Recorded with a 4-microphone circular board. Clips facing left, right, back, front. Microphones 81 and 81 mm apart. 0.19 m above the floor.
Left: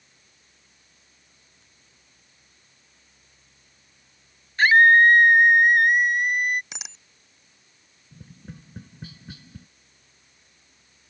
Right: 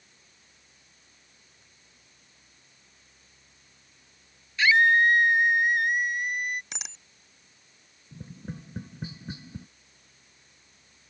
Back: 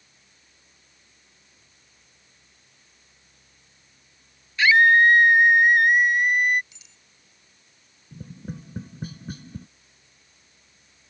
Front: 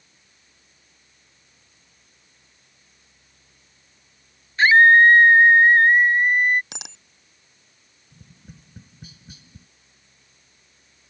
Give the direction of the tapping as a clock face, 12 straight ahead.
5 o'clock.